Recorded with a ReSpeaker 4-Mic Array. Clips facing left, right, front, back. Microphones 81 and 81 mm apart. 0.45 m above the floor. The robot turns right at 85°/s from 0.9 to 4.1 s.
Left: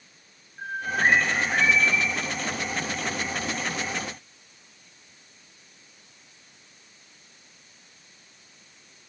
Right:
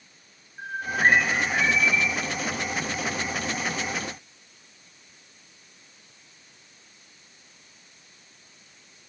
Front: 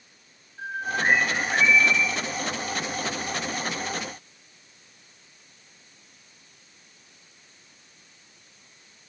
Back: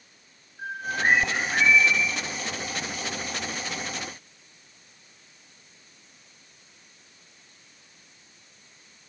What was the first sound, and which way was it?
A bird, 5° right.